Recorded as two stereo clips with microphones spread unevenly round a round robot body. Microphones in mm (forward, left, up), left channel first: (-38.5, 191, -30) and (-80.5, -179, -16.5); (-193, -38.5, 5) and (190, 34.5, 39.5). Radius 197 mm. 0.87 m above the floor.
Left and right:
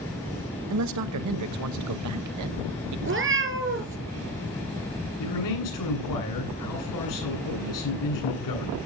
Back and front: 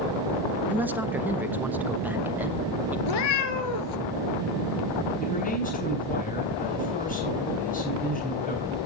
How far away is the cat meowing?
About 1.8 m.